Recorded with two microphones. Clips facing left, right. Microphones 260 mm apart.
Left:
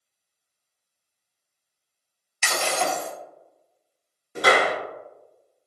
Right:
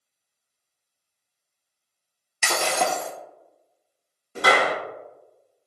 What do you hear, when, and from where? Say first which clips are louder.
2.4 s breaking glass: right 1 dB; 50° right (ahead or behind), 0.6 m
4.3 s a clap: left 1 dB; 20° left (ahead or behind), 1.6 m